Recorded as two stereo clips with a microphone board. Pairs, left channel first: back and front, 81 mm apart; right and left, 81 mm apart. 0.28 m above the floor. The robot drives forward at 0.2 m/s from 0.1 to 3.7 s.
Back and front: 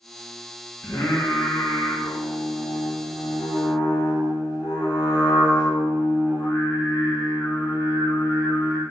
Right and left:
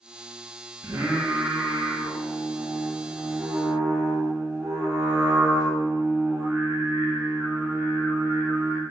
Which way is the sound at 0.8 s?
125° left.